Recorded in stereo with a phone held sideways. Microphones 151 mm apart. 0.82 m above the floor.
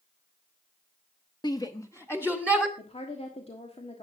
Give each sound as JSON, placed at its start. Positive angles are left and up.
{"t": 1.4, "sound": "a shout", "side_deg": 30, "distance_m": 0.8}
{"t": 2.8, "sound": "a woman speaking", "side_deg": 40, "distance_m": 1.4}